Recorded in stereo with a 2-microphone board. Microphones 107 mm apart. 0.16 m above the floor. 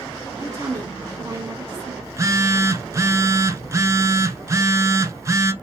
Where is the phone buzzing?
30° right (ahead or behind), 0.6 m.